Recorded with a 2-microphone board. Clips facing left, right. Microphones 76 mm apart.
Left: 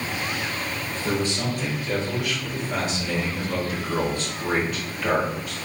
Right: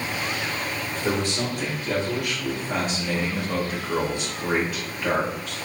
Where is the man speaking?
75° right (ahead or behind), 1.9 m; by 5.5 s 10° left (ahead or behind), 1.4 m.